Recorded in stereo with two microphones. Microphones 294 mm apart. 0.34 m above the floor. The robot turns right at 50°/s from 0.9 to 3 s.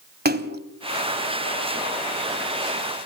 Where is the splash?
30° right (ahead or behind), 1.4 m.